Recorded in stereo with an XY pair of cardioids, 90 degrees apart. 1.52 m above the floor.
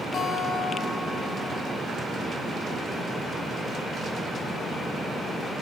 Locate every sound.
0.1 s a guitar: 65° left, 4 m